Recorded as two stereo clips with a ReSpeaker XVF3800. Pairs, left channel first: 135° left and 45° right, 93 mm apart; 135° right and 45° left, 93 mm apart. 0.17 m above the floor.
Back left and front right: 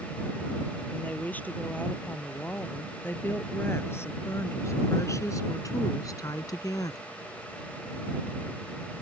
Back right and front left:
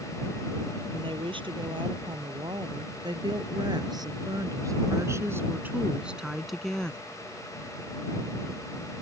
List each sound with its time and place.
0.9 s a woman speaking: 60° left; by 7.0 s 155° left